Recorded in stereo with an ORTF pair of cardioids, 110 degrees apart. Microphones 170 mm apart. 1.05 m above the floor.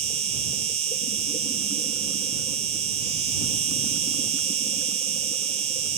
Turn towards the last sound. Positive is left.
turn(degrees=-40)